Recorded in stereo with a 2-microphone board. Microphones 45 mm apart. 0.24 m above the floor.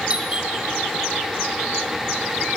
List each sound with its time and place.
0.1 s a doorbell: 25° right (ahead or behind), 2.5 m